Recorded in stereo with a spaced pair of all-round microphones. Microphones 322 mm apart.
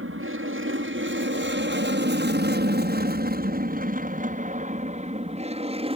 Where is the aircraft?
40° right (ahead or behind); by 6.0 s 15° right (ahead or behind).